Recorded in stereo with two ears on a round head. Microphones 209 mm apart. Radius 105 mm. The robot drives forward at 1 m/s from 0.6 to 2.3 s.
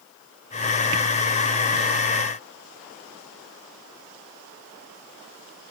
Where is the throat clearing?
I don't hear throat clearing.